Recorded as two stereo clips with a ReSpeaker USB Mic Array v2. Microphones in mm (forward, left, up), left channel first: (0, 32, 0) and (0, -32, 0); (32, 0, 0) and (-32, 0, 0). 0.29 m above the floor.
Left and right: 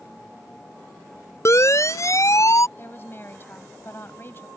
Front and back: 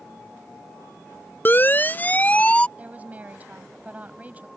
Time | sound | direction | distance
1.4 | a siren | 55° left | ?
2.8 | a woman speaking | 125° left | ?